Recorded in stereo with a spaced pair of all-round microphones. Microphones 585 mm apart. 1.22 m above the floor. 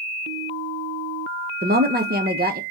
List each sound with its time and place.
1.6 s a woman speaking: 15° right (ahead or behind), 0.9 m